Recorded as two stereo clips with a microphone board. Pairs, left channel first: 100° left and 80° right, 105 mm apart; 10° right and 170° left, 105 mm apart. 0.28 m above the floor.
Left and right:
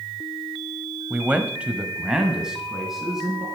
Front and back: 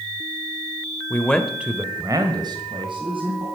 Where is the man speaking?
25° right, 1.2 m; by 3.5 s 165° right, 3 m.